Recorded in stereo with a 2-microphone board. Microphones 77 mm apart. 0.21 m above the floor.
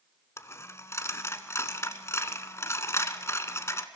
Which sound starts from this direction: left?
A dropped coin, at 0.4 s.